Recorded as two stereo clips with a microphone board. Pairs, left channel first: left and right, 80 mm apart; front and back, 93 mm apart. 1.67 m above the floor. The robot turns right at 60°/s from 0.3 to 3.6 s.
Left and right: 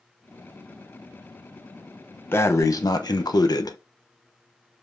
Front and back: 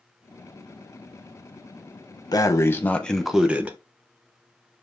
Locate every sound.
2.3 s breathing: 35° left, 1.0 m; by 3.8 s 110° left, 1.0 m